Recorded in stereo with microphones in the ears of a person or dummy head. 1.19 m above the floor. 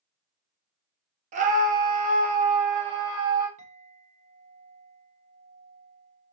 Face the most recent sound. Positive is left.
turn(degrees=-40)  # may be behind; listen again after turning